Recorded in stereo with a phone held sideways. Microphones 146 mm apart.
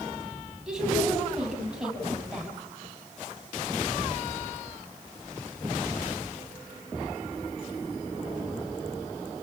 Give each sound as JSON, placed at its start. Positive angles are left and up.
{"t": 0.7, "sound": "a woman speaking", "side_deg": -5, "distance_m": 8.5}